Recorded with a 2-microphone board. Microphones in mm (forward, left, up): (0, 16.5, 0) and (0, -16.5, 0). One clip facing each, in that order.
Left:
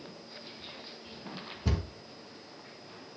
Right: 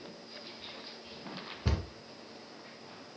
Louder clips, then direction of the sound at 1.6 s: Left 2 dB; 20° right (ahead or behind).